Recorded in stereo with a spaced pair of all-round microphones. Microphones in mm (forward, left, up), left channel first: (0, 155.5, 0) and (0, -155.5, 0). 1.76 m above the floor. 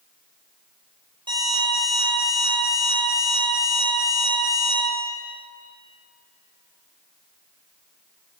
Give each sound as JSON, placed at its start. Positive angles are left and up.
{"t": 1.3, "sound": "an alarm clock", "side_deg": -15, "distance_m": 5.5}